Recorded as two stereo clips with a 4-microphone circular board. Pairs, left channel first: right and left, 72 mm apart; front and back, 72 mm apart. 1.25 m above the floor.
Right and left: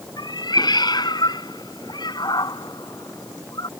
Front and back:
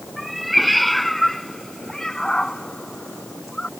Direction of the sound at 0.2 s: 90° right.